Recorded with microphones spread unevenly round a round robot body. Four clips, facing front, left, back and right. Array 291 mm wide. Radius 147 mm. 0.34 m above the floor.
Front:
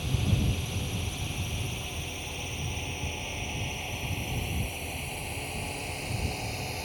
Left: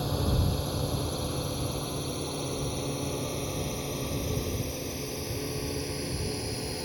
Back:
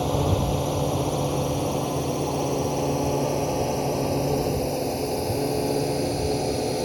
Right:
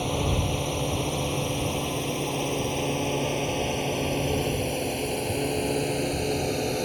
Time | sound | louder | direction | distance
0.0 | a drone | right 3 dB, back 9 dB | 165° right | ?